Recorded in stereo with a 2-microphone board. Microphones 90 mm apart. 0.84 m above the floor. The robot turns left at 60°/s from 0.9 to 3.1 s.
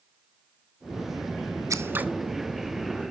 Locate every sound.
1.7 s scissors: 35° right (ahead or behind), 1.0 m; by 2.1 s 15° right (ahead or behind), 1.0 m